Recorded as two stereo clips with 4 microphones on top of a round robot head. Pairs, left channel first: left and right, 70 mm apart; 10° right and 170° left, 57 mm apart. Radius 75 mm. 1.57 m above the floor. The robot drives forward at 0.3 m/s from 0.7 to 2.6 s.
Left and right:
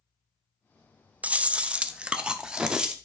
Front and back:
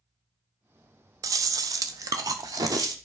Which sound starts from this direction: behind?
Chewing, at 1.2 s.